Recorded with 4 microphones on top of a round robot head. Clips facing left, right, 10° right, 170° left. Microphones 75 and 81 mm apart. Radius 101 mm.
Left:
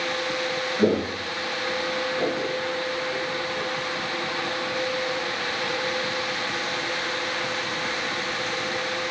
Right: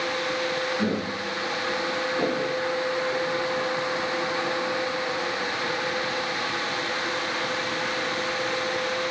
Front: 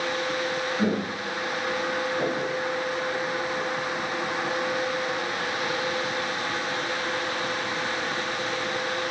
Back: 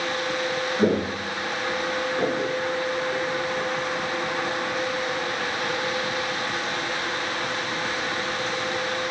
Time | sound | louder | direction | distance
0.8 | footsteps | left 4 dB, back 7 dB | 130° left | 0.7 m